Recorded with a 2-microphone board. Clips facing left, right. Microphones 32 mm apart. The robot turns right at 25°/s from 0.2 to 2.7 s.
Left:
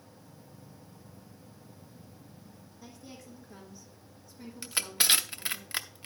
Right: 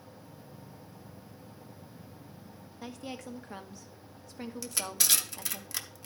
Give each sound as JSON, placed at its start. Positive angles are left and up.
{"t": 2.8, "sound": "a woman speaking", "side_deg": -60, "distance_m": 1.0}
{"t": 4.6, "sound": "crushing", "side_deg": 30, "distance_m": 0.7}